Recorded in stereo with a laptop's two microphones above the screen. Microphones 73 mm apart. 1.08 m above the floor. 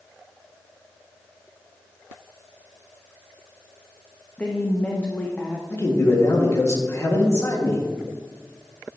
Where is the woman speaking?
20° left (ahead or behind), 0.8 m.